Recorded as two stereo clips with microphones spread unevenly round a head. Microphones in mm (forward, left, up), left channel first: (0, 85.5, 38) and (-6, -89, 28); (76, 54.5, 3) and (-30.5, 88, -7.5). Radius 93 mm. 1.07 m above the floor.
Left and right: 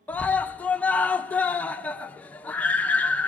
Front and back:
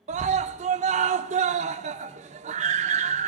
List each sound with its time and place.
0.1 s a scream: 170° left, 0.7 m